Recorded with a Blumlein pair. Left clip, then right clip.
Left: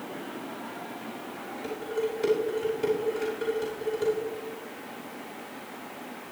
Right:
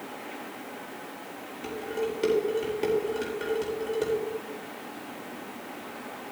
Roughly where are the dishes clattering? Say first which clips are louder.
Even; ahead right.